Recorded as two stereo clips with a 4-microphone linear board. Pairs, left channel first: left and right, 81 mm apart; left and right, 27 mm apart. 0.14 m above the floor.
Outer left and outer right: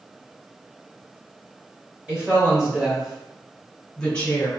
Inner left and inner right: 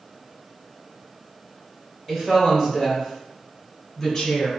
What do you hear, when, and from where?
2.1 s a woman speaking: 15° right (ahead or behind), 1.7 m; by 4.5 s 20° left (ahead or behind), 1.2 m